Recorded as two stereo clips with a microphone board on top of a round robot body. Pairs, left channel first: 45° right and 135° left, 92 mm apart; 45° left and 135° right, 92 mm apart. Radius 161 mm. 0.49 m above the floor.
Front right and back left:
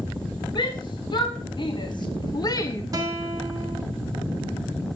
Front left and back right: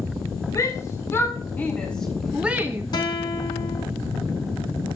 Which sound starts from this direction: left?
A guitar, at 2.9 s.